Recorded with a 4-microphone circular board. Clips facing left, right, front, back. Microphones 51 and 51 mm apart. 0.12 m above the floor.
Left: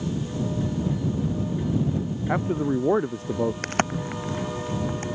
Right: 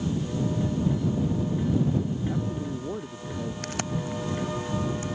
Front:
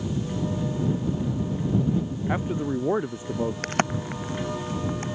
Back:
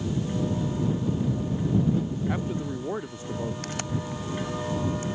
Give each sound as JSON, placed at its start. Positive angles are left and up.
{"t": 2.3, "sound": "a man speaking", "azimuth_deg": 65}
{"t": 3.6, "sound": "a crack", "azimuth_deg": 40}